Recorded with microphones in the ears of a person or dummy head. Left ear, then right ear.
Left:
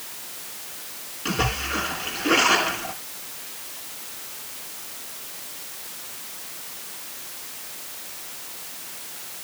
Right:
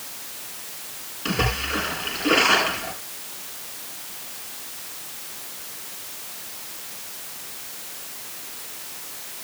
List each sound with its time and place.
1.2 s a splash: 10° right (ahead or behind), 8 m